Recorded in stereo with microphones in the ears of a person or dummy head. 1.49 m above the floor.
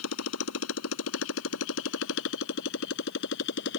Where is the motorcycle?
85° left; by 3.8 s 65° left (ahead or behind).